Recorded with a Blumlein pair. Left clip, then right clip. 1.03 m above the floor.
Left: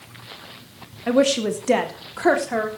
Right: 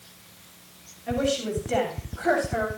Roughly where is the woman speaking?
Ahead left.